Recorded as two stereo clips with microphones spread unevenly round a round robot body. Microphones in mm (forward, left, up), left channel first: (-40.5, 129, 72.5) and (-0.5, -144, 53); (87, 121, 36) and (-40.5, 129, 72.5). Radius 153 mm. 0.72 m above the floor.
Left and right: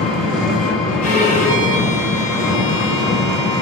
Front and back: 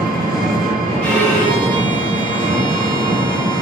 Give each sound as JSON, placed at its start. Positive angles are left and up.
{"t": 0.0, "sound": "an engine running", "azimuth_deg": -175, "distance_m": 0.8}
{"t": 1.0, "sound": "a violin", "azimuth_deg": 45, "distance_m": 1.2}